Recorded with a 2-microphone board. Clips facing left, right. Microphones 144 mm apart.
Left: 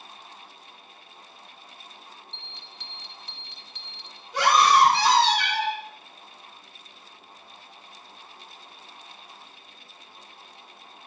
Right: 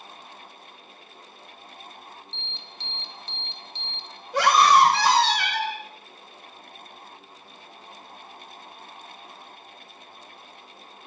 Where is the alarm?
30° right (ahead or behind), 0.7 m.